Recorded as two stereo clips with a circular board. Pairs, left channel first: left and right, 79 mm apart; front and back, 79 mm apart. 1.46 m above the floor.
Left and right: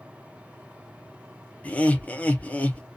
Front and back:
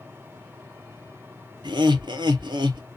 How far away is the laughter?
About 0.7 m.